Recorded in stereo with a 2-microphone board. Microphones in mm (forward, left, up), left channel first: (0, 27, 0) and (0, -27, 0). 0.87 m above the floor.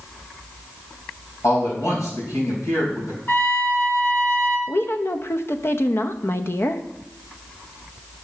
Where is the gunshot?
I don't hear a gunshot.